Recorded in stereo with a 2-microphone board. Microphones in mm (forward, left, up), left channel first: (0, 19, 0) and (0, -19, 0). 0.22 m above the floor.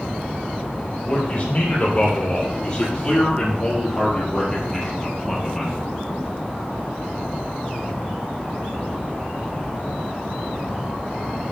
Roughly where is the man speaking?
Left.